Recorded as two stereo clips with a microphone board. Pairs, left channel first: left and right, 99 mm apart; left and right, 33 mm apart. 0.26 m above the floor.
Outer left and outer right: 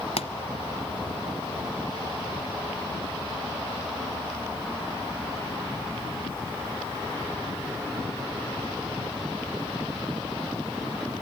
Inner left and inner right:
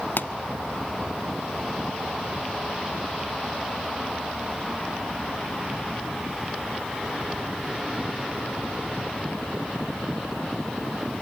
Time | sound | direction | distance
0.2 | a pop | 70° left (ahead or behind) | 0.9 m